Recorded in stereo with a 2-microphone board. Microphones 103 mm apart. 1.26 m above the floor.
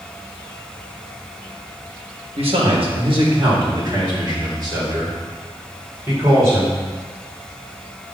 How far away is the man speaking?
About 2.0 m.